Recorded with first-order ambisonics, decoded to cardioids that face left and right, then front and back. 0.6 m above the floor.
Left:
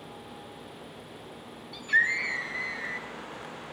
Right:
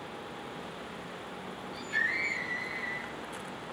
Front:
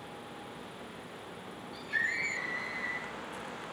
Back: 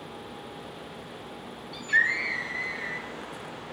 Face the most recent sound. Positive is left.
turn(degrees=115)